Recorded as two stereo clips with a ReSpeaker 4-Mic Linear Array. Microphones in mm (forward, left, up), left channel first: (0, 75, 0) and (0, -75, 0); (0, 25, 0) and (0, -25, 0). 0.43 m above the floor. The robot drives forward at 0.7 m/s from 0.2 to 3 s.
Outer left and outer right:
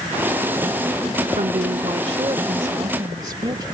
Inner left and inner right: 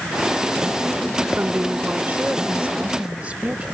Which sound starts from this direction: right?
A woman speaking, at 1.4 s.